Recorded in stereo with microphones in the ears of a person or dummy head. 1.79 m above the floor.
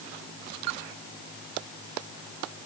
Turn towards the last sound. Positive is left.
No sound to turn to.